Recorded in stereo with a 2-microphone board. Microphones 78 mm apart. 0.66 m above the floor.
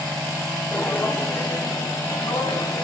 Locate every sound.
0.7 s footsteps: 15° left (ahead or behind), 2.5 m; by 2.8 s 75° left (ahead or behind), 3.5 m